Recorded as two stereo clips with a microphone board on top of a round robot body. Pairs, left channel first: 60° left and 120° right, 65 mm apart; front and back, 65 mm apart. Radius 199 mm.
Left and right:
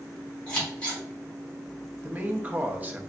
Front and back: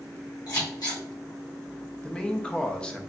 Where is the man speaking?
70° right, 1.0 m.